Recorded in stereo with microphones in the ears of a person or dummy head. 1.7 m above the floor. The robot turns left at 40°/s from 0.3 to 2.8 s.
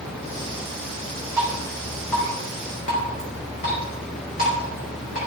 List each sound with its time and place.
1.4 s dripping: 15° right (ahead or behind), 4.5 m; by 5.2 s 40° left (ahead or behind), 4.5 m